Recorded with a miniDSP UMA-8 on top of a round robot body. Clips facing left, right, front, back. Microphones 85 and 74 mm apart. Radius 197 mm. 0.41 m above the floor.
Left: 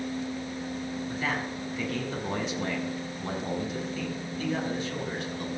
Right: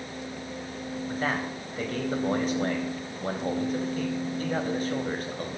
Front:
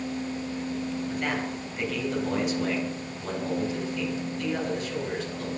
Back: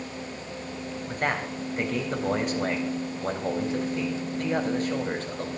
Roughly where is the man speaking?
Behind right.